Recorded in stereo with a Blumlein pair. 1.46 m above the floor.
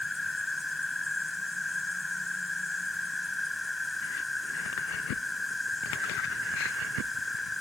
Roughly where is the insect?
Ahead.